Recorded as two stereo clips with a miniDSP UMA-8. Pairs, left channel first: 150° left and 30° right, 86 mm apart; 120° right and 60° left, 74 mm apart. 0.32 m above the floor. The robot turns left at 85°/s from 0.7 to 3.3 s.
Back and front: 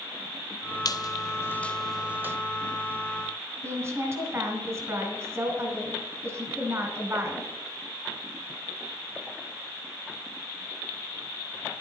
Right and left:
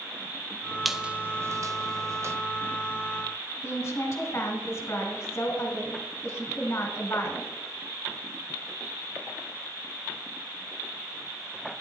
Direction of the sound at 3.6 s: 75° right.